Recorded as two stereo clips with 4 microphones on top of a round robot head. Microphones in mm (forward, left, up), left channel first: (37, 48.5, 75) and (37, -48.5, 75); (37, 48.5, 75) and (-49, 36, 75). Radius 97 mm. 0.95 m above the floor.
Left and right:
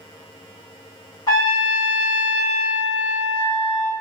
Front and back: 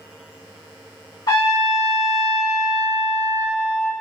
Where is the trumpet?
40° left, 1.7 m.